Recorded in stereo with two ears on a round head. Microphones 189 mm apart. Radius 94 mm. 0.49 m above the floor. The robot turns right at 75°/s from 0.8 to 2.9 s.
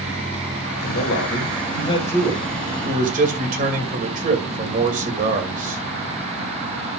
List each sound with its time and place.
0.8 s a man speaking: 70° left, 2.5 m; by 5.8 s 135° right, 2.5 m